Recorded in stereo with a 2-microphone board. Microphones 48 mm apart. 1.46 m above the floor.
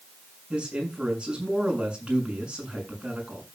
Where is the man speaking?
20° right (ahead or behind), 6.5 m.